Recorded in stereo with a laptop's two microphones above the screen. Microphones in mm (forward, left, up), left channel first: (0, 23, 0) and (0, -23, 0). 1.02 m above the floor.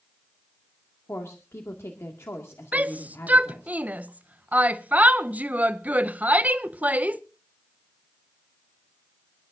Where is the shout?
35° right (ahead or behind), 0.6 m.